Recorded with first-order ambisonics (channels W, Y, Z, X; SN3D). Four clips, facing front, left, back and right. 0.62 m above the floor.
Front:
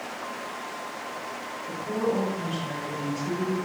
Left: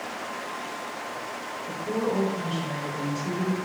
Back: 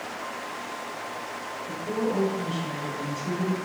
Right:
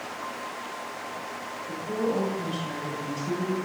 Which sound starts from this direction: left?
A woman speaking, at 1.7 s.